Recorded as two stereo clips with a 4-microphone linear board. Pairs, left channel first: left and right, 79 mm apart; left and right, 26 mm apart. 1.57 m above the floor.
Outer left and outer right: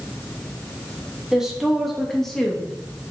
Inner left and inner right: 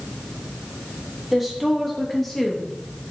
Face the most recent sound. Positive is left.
turn(degrees=10)  # may be behind; listen again after turning